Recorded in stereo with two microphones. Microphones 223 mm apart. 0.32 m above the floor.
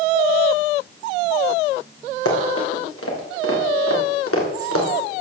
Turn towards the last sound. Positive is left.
turn(degrees=80)